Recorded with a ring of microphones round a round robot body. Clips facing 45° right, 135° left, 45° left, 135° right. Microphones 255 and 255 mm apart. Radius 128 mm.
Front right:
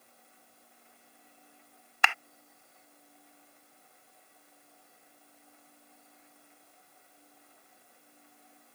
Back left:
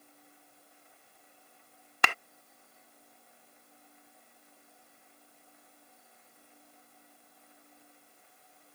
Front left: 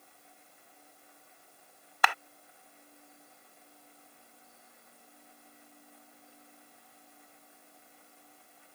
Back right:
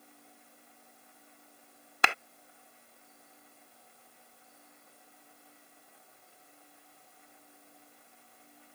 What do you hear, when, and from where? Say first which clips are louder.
2.0 s a clap: back left 1 dB, front left 2 dB; 170° left